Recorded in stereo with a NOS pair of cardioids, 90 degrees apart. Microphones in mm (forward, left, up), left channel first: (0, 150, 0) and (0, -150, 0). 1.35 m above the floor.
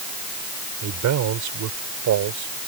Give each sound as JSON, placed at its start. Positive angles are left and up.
{"t": 0.8, "sound": "a man speaking", "azimuth_deg": -65}